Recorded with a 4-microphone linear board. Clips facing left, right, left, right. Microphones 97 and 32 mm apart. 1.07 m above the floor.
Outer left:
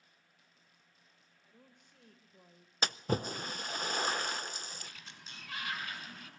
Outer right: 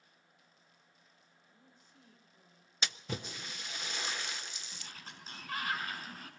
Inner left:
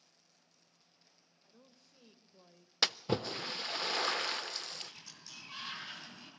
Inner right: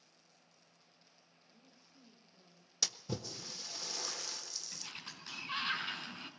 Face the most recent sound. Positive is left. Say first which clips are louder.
# even, inner right 1 dB
turn(degrees=-40)  # may be behind; listen again after turning